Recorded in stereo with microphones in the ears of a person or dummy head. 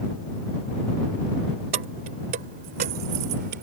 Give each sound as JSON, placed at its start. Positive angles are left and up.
{"t": 1.7, "sound": "keys jangling", "side_deg": -40}